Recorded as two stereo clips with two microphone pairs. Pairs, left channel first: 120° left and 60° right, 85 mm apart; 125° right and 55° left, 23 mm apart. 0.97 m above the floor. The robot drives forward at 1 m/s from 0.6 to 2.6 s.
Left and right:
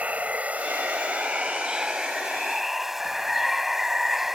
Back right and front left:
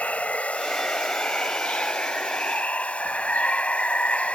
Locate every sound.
0.0 s running water: 130° right; by 4.3 s 145° right